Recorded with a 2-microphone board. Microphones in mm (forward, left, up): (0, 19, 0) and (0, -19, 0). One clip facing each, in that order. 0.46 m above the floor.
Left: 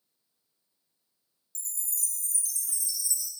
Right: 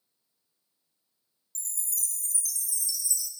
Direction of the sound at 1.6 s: 30° left (ahead or behind).